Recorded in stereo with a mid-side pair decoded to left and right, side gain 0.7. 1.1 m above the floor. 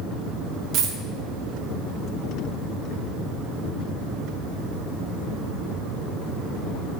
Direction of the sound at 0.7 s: 50° right.